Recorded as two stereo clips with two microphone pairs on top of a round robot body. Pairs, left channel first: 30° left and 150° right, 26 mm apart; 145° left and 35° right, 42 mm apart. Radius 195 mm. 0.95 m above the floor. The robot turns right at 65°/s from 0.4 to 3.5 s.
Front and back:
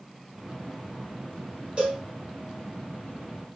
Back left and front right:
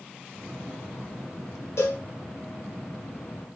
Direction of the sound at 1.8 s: 155° left.